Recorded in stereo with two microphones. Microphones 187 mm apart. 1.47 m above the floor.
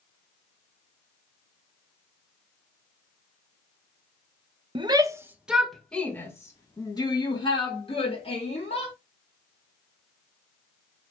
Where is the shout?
25° right (ahead or behind), 1.4 m; by 8.9 s 35° left (ahead or behind), 4 m.